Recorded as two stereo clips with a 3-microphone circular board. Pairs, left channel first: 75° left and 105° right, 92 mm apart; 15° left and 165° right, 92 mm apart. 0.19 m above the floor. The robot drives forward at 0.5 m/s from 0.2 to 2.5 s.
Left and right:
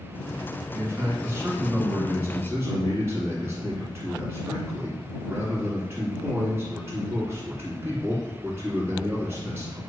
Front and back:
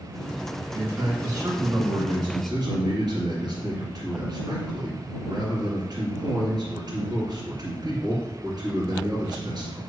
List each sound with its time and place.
0.7 s a man speaking: 140° right, 1.9 m; by 9.8 s 160° right, 2.5 m